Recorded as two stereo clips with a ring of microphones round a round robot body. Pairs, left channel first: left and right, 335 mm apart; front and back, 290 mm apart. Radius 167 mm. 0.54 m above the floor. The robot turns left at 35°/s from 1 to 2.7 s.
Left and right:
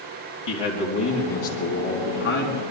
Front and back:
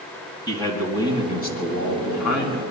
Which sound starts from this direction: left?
A man speaking, at 0.5 s.